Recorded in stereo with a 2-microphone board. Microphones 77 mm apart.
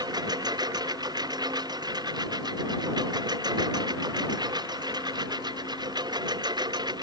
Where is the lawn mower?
65° right (ahead or behind); by 7.0 s 70° right (ahead or behind).